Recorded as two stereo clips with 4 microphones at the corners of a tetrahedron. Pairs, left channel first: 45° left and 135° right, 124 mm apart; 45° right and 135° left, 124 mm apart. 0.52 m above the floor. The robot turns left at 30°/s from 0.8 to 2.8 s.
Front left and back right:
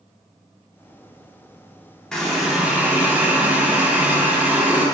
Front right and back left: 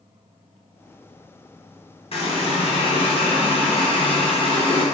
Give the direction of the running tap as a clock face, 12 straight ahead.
1 o'clock.